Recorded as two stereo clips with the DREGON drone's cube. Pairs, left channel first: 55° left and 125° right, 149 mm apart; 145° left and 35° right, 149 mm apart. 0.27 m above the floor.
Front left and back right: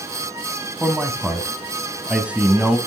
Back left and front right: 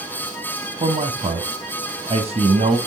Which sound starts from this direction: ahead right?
A man speaking, at 0.8 s.